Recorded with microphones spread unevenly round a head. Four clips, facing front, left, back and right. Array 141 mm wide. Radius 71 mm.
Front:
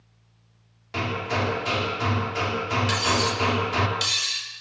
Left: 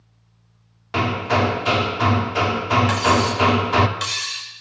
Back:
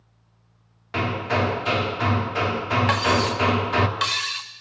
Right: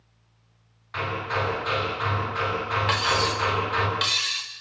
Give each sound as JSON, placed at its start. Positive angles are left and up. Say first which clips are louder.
{"t": 0.9, "sound": "hammering", "louder": "left 8 dB, back 3 dB", "azimuth_deg": 110, "distance_m": 3.0}
{"t": 2.9, "sound": "cutlery clinking", "louder": "left 6 dB, back 4 dB", "azimuth_deg": 180, "distance_m": 2.5}